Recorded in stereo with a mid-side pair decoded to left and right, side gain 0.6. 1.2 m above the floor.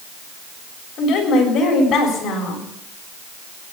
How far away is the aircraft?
I don't hear an aircraft.